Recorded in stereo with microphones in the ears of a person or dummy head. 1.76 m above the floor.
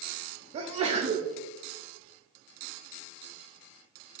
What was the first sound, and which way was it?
A sneeze, 40° right (ahead or behind).